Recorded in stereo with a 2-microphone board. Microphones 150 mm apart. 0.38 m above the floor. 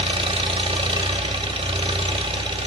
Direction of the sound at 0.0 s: 40° right (ahead or behind).